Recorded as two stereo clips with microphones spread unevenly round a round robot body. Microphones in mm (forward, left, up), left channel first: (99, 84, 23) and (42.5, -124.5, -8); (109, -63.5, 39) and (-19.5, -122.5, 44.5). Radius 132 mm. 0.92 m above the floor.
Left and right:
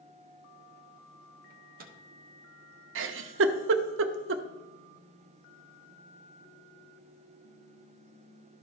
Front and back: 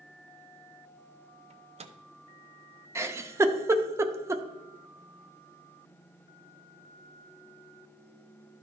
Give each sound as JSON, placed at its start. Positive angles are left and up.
{"t": 1.5, "sound": "a microwave", "azimuth_deg": -125, "distance_m": 0.7}
{"t": 3.0, "sound": "a giggle", "azimuth_deg": -90, "distance_m": 0.6}